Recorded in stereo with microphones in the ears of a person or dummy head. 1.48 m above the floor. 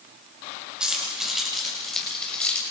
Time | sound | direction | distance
0.8 | keys jangling | 5° right (ahead or behind) | 6.5 m